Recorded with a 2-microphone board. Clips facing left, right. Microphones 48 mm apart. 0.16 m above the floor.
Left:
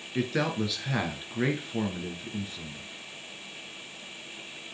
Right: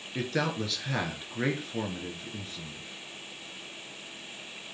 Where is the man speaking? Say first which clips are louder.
Left 2 dB; 5° left (ahead or behind), 1.9 m.